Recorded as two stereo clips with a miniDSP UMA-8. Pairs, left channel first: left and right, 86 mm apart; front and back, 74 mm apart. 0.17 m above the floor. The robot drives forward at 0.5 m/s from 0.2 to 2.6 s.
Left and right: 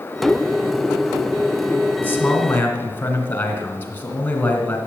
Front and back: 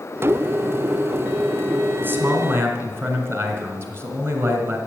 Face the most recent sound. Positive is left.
turn(degrees=145)